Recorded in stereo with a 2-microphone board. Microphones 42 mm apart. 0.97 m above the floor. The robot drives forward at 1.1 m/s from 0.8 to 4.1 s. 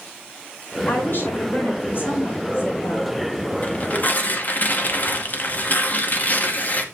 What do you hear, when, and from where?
0.9 s a woman speaking: 50° left (ahead or behind), 8 m; by 3.2 s 65° left (ahead or behind), 7 m
3.6 s tearing paper: 35° left (ahead or behind), 2.5 m; by 6.8 s 45° left (ahead or behind), 1.9 m